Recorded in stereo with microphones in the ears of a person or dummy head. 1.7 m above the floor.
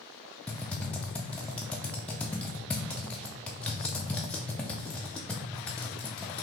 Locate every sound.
0.5 s typing on a keyboard: 5° left (ahead or behind), 0.5 m